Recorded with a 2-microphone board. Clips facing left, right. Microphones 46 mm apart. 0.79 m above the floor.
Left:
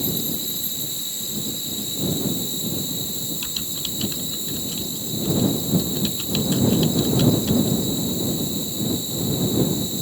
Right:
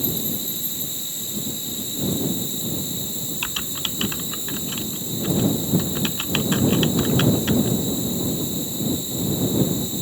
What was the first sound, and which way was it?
An insect, 40° right (ahead or behind).